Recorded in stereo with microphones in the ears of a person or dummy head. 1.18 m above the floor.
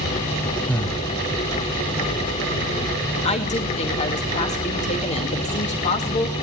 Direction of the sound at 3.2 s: 35° left (ahead or behind).